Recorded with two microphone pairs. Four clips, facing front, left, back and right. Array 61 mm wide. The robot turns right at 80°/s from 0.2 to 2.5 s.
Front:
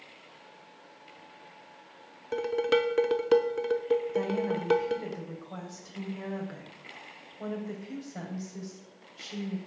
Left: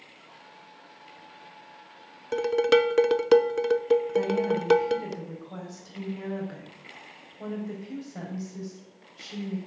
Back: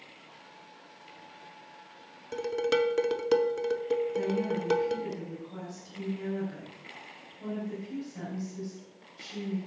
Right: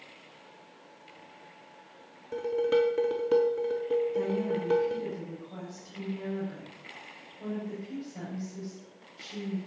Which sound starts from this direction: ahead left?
A woman speaking, at 4.1 s.